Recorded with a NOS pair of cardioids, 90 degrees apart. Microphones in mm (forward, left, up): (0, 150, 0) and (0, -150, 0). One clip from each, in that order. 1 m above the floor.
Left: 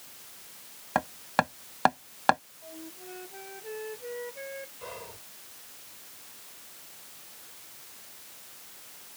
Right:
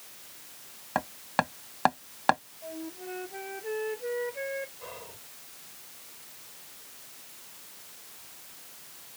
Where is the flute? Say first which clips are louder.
Right 5 dB; 40° right.